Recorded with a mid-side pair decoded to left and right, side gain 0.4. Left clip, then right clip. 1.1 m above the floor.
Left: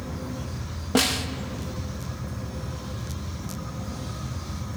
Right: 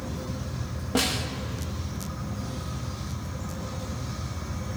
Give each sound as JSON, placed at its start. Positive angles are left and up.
{"t": 0.9, "sound": "a snare drum", "azimuth_deg": 35, "distance_m": 1.3}